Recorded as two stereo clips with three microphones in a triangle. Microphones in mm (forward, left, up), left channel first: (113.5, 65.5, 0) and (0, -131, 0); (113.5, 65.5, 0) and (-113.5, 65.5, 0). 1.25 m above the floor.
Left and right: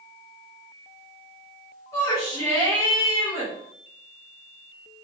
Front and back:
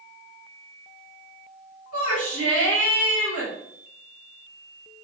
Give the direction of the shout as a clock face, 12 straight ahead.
1 o'clock.